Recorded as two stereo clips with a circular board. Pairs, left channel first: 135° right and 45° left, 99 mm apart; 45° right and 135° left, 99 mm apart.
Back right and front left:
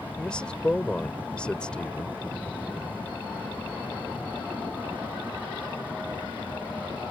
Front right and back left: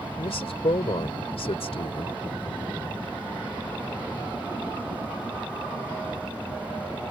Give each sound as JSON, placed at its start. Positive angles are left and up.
{"t": 0.2, "sound": "a man speaking", "azimuth_deg": -55}